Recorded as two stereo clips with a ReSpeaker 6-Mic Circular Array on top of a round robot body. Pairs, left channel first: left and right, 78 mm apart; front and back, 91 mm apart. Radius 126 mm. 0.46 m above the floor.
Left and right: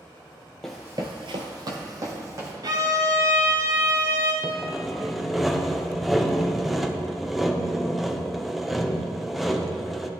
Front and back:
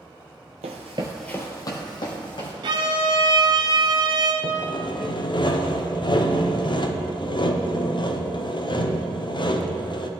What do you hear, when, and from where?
0.6 s running footsteps: 175° left, 0.8 m; by 2.5 s 40° right, 2.5 m
2.6 s a violin: 140° right, 0.6 m
4.4 s sawing: straight ahead, 0.9 m